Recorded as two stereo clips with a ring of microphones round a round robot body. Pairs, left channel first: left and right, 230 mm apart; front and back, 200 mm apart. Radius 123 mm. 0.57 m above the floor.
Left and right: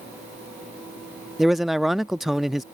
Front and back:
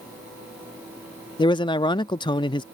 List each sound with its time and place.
1.4 s a man speaking: straight ahead